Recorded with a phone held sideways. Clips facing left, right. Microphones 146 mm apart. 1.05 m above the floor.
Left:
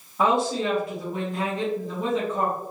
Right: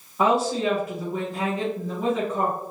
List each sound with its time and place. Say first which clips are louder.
0.2 s a woman speaking: right 1 dB; 5° right (ahead or behind), 1.1 m